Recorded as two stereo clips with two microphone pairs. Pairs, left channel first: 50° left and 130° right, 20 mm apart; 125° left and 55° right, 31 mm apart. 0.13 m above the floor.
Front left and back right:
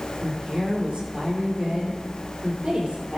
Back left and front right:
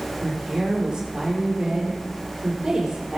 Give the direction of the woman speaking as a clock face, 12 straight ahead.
4 o'clock.